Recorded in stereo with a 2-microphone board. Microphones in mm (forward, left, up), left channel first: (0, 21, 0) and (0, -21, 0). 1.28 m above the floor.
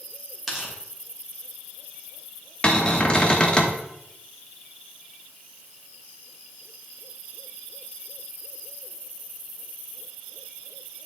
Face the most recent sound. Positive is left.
turn(degrees=25)  # may be behind; listen again after turning